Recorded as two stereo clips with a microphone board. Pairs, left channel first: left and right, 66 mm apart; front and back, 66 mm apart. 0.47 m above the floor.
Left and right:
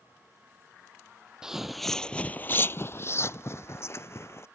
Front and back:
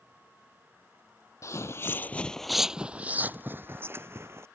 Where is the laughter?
No laughter in this recording.